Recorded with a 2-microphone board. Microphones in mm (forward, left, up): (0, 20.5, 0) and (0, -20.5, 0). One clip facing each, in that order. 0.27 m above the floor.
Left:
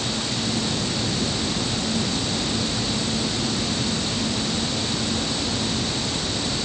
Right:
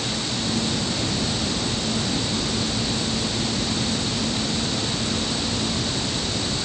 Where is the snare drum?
I don't hear a snare drum.